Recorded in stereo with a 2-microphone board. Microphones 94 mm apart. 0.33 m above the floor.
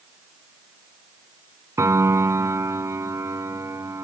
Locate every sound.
1.8 s a piano: 35° right (ahead or behind), 0.6 m